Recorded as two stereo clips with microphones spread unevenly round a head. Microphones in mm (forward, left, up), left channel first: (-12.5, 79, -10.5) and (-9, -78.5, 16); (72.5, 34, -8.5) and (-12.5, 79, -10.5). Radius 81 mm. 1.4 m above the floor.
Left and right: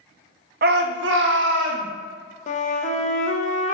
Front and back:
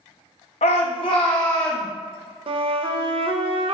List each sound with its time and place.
0.6 s a shout: 55° right, 0.6 m; by 1.9 s 105° right, 1.0 m
2.5 s a flute: 135° left, 0.6 m